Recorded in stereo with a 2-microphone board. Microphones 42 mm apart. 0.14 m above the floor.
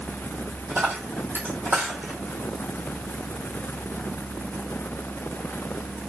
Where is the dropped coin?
50° right (ahead or behind), 1.5 m.